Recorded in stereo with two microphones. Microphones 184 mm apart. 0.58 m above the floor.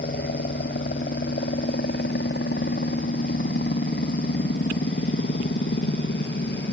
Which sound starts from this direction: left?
A helicopter, at 0.0 s.